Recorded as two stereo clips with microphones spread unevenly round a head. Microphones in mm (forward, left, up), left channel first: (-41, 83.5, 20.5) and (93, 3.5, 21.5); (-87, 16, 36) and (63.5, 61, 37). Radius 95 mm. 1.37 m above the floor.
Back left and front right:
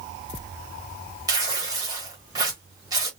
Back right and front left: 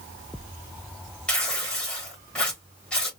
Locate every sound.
1.3 s tearing paper: 80° right, 1.2 m